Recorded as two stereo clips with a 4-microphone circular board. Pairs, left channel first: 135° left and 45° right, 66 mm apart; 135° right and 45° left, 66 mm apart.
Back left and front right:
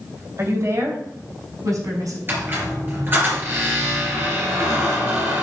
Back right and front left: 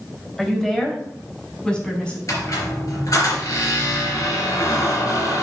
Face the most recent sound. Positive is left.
turn(degrees=-100)